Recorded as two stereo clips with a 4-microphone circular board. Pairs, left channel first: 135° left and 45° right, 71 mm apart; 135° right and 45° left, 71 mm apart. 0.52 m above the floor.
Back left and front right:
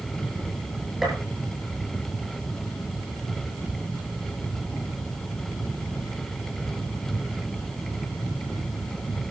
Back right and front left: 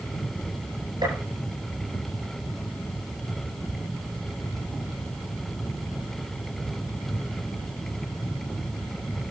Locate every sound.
1.0 s a gunshot: 40° left, 9 m